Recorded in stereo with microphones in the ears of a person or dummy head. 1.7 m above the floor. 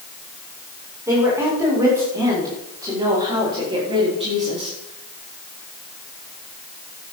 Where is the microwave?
I don't hear a microwave.